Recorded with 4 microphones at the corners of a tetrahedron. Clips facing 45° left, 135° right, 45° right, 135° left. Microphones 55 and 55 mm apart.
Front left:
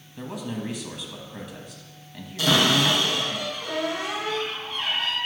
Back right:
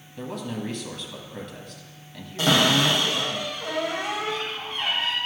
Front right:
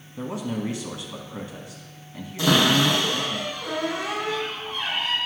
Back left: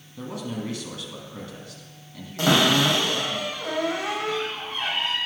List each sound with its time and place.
0.2 s a man speaking: 30° right, 1.0 m
2.4 s a cupboard door: 170° left, 3.5 m